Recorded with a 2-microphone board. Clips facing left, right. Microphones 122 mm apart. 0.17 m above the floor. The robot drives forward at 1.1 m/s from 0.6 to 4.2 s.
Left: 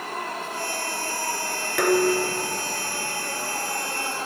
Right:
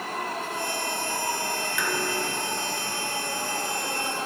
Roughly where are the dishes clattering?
Left.